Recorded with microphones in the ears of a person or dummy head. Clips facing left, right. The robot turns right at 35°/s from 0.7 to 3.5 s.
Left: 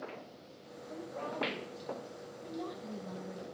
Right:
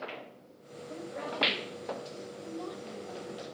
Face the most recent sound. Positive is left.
turn(degrees=55)